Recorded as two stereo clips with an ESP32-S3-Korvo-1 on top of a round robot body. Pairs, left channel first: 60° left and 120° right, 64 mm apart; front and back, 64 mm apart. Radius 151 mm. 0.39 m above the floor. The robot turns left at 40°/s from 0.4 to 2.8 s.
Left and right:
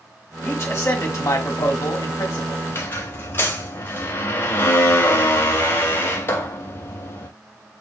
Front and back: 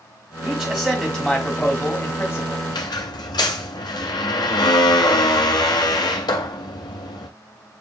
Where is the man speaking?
115° left, 1.4 m; by 2.6 s 30° left, 1.4 m.